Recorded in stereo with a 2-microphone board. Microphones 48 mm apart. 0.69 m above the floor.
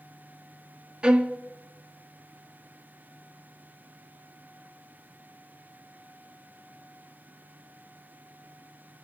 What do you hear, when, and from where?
1.0 s a violin: 20° right (ahead or behind), 0.7 m